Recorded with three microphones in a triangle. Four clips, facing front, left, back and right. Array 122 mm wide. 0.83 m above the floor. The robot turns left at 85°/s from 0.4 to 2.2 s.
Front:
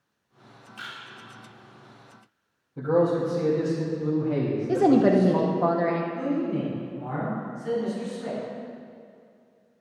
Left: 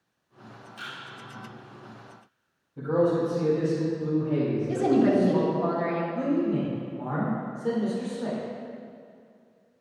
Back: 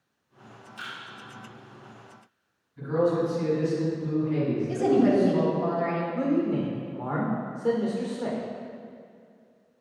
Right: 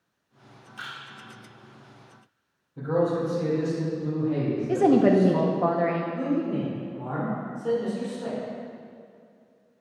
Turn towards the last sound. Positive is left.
turn(degrees=170)